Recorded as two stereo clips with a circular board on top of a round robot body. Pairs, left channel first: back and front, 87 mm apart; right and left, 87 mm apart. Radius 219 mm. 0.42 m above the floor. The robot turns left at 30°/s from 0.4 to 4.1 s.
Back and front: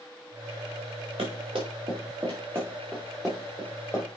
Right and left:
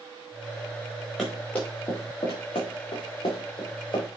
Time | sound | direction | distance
1.2 | running footsteps | 5° right | 4.5 m